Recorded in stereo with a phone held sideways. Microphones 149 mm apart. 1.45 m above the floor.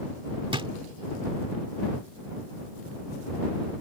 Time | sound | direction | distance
0.5 | a drawer | 35° right (ahead or behind) | ?